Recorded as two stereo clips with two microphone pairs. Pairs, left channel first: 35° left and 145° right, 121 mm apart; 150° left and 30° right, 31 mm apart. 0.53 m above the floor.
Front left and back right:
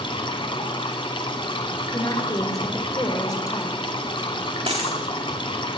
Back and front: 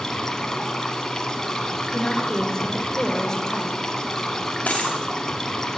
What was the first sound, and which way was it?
Running water, 75° left.